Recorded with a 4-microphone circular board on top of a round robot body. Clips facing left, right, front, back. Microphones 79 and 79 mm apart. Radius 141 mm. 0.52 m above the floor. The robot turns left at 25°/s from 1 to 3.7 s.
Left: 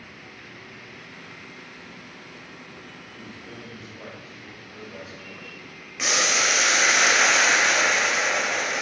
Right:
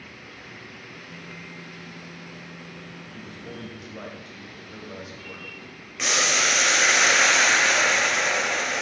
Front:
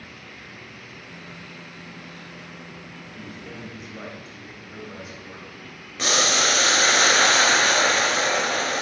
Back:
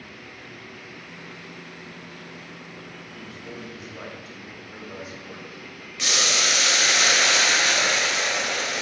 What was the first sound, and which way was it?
A man speaking, 75° right.